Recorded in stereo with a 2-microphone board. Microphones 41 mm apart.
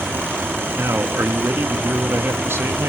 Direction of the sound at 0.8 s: 70° right (ahead or behind).